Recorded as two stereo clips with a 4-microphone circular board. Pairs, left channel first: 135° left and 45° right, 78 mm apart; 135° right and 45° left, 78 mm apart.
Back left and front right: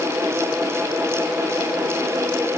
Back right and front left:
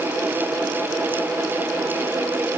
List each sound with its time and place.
Only background noise.